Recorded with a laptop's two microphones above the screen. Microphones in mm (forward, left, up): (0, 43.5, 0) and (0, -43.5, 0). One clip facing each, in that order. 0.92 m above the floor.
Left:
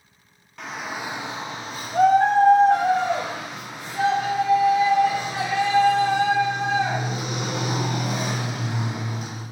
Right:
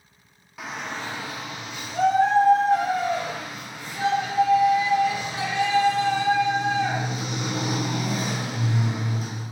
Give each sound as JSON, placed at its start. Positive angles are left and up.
{"t": 0.6, "sound": "a shout", "side_deg": -5, "distance_m": 0.8}